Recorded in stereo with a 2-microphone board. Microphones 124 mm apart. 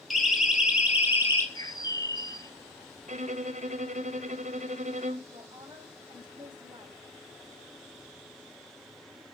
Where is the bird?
30° left (ahead or behind), 1.2 m.